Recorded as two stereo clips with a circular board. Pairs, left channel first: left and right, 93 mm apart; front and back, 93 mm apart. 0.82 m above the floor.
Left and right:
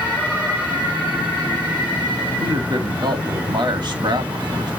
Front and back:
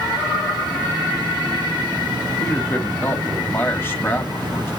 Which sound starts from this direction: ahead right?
A man speaking, at 2.4 s.